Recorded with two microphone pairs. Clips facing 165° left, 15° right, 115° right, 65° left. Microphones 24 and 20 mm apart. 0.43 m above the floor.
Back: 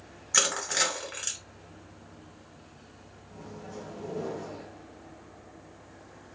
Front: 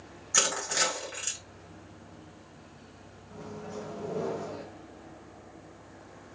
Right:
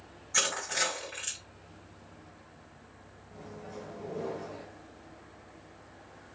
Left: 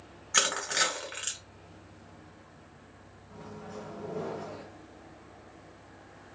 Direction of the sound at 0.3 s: 105° left.